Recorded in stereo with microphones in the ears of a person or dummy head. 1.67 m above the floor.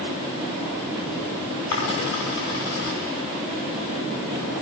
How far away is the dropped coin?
About 6 m.